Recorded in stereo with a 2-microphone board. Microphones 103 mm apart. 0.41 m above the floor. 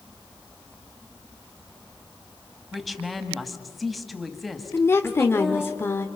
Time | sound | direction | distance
2.7 | a woman speaking | centre (ahead or behind) | 2 m
4.7 | a woman speaking | 25° left (ahead or behind) | 0.9 m